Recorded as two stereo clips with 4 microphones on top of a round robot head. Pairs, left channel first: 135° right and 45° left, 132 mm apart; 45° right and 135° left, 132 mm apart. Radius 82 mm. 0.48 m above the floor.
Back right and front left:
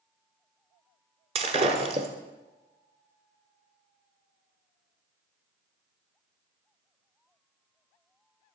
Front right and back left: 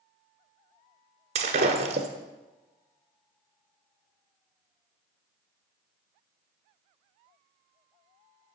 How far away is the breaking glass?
About 1.2 m.